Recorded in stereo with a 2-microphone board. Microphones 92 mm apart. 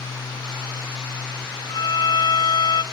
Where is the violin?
55° left (ahead or behind), 0.7 m.